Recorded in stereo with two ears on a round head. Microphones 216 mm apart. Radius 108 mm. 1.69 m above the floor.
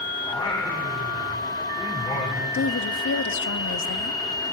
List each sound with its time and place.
0.2 s singing: 20° left (ahead or behind), 4.5 m
2.5 s a woman speaking: 50° left (ahead or behind), 0.9 m